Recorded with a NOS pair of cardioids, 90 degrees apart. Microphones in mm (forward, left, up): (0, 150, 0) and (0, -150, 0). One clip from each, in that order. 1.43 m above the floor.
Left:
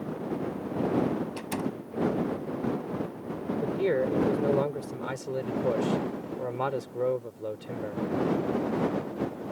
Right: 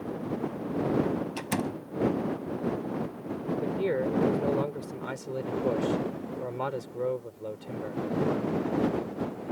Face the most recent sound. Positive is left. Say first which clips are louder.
# left 3 dB
turn(degrees=15)